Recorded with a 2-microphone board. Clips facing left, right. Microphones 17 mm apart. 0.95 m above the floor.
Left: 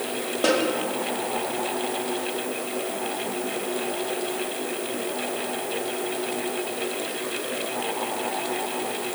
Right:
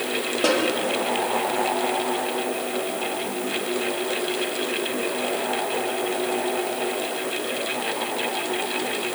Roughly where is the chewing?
I don't hear chewing.